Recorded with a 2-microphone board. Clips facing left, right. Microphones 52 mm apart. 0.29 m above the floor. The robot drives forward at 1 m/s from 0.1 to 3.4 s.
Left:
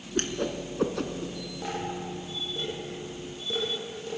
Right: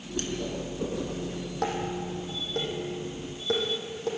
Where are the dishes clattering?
65° right (ahead or behind), 7.5 m; by 4.1 s 55° right (ahead or behind), 8.5 m.